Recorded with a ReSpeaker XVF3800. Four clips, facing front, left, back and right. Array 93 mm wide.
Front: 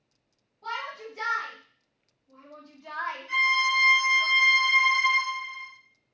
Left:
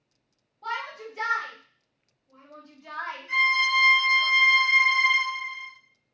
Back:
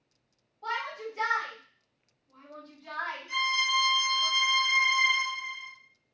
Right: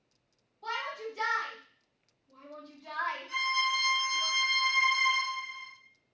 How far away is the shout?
About 2 m.